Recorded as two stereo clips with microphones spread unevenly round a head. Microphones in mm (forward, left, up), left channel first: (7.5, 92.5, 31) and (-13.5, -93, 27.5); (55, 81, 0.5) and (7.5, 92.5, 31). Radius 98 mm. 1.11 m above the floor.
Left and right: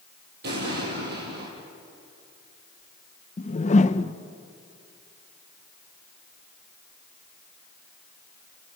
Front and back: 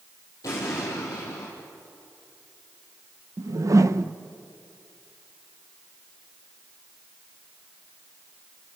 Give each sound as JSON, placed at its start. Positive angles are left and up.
{"t": 0.4, "sound": "an explosion", "azimuth_deg": -60, "distance_m": 6.0}
{"t": 3.4, "sound": "a whoosh", "azimuth_deg": 135, "distance_m": 0.9}